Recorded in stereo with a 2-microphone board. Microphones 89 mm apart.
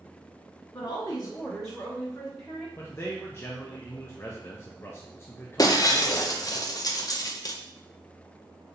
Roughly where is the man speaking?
Left.